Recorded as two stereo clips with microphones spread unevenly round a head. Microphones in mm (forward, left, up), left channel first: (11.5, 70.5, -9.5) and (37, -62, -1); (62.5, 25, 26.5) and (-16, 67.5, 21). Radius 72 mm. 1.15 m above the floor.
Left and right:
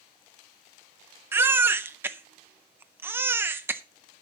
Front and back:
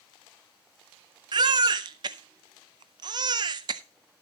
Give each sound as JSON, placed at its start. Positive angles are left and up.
{"t": 1.3, "sound": "a baby crying", "azimuth_deg": -155, "distance_m": 0.5}